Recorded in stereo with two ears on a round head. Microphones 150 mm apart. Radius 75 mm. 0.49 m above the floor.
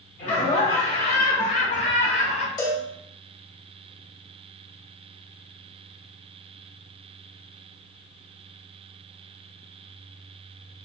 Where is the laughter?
35° left (ahead or behind), 1.2 m.